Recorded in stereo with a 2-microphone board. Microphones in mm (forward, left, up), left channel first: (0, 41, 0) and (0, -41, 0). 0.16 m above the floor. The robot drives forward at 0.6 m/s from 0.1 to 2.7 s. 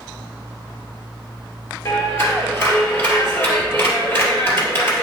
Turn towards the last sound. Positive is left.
turn(degrees=30)  # may be behind; listen again after turning